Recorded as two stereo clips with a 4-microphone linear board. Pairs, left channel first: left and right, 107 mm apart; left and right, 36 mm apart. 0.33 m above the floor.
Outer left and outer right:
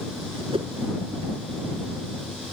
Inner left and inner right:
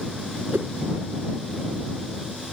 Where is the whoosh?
65° right (ahead or behind).